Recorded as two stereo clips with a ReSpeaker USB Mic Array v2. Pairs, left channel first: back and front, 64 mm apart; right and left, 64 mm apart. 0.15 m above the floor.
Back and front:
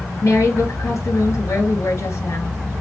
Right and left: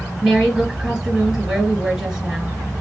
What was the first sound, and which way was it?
A woman speaking, 170° left.